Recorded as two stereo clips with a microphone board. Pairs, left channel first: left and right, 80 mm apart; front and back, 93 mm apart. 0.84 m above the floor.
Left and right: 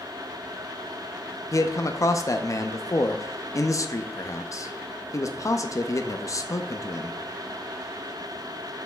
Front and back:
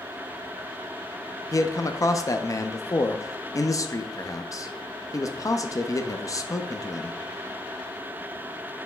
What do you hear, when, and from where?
1.5 s a man speaking: 45° left, 0.6 m